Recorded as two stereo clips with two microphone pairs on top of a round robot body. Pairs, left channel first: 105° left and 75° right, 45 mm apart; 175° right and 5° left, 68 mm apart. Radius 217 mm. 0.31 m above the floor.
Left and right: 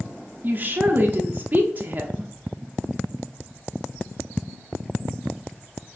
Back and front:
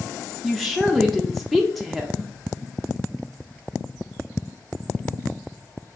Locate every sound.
0.4 s a woman speaking: 95° right, 0.9 m